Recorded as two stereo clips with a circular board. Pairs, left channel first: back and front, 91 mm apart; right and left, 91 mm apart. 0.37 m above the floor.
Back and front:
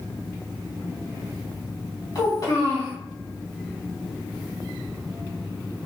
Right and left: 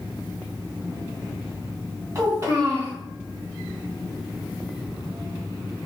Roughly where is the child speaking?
Behind left.